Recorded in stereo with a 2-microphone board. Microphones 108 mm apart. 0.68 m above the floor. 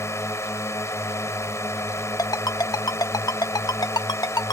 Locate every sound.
0.0 s a drone: 25° left (ahead or behind)
2.2 s a ringtone: 40° left (ahead or behind)